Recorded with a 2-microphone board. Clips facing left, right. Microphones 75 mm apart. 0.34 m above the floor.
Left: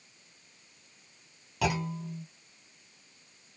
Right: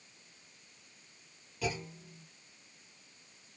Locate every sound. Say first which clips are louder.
1.6 s a clunk: left 7 dB; 75° left (ahead or behind), 1.1 m